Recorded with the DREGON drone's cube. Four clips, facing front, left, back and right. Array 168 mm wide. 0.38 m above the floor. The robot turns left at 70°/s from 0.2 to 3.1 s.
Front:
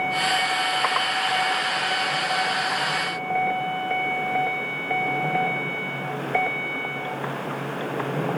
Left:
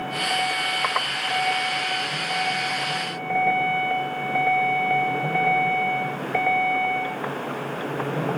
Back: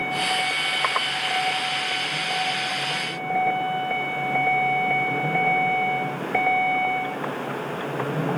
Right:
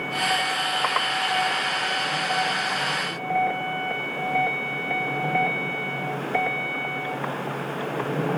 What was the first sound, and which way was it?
Only background noise.